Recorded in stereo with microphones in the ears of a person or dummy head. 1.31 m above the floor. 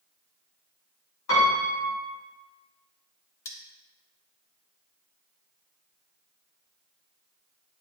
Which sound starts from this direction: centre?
Cutlery clinking, at 3.5 s.